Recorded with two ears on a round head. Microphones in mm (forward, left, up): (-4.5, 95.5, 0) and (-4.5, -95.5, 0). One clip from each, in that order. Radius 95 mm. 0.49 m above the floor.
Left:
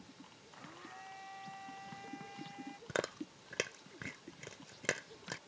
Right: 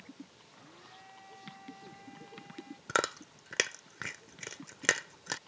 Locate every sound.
0.5 s a blender: 25° left (ahead or behind)
2.9 s chewing: 50° right (ahead or behind)